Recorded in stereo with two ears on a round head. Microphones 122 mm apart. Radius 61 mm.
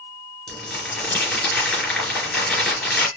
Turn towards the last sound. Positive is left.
turn(degrees=10)  # may be behind; listen again after turning